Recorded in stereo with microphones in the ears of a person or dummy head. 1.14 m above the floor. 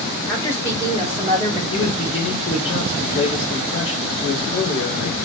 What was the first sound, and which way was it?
A woman speaking, 15° left (ahead or behind).